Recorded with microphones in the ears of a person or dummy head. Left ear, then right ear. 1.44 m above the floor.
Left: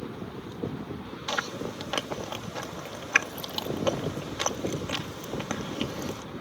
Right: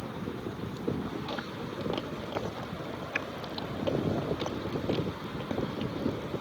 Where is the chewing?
60° left (ahead or behind).